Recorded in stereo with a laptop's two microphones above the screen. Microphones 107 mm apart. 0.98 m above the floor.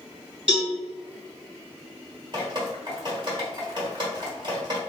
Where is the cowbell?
5° right (ahead or behind), 1.6 m.